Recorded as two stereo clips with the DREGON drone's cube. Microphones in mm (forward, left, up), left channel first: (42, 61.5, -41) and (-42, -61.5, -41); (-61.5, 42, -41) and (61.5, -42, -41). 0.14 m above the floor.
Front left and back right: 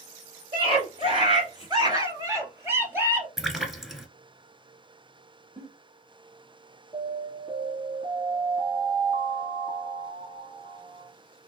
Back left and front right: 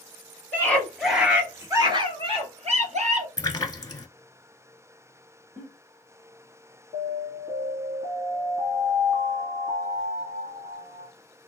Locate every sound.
0.5 s a scream: 145° right, 1.8 m; by 3.3 s 50° right, 2.5 m
3.4 s a splash: 150° left, 0.8 m
5.6 s a giggle: 60° right, 1.9 m
6.9 s an alarm: 85° right, 3 m